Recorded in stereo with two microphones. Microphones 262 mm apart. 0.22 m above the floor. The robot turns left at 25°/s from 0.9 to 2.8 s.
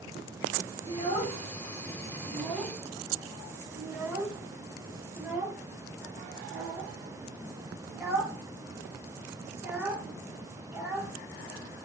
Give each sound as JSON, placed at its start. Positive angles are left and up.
{"t": 0.9, "sound": "a child speaking", "side_deg": 25, "distance_m": 0.7}